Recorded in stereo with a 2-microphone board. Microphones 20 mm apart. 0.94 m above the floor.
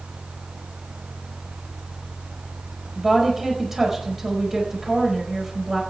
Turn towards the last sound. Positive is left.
turn(degrees=-20)  # may be behind; listen again after turning